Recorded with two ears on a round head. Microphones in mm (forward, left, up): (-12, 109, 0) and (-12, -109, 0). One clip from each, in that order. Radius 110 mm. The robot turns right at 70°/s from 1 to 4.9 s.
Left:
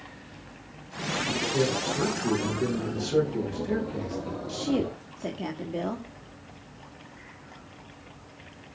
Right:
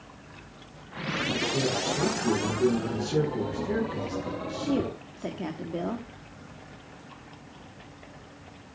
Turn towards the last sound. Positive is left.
turn(degrees=5)  # may be behind; listen again after turning